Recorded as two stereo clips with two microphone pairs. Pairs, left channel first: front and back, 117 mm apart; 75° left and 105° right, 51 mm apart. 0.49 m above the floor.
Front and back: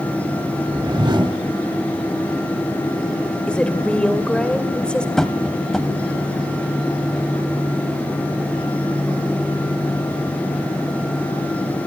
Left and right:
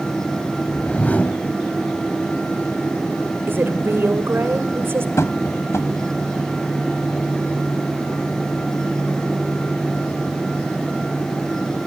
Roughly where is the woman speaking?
Right.